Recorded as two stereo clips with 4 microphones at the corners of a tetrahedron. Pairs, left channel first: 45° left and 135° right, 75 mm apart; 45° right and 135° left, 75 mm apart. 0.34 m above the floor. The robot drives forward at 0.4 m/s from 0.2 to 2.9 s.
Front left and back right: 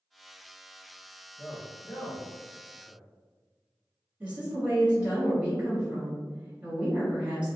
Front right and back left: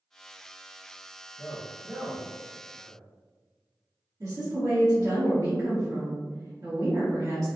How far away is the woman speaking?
About 1.8 m.